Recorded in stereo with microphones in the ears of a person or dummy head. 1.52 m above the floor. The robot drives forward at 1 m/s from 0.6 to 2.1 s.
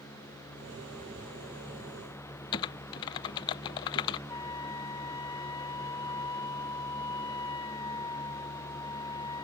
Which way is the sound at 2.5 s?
20° left (ahead or behind).